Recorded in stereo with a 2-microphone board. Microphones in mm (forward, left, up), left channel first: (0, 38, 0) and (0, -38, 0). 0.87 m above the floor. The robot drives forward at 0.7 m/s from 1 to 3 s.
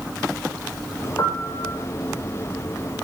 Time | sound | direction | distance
1.2 | a piano | 45° left (ahead or behind) | 4 m